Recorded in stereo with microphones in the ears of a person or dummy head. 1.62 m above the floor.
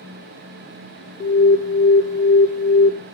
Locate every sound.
1.2 s an alarm: 35° left (ahead or behind), 0.8 m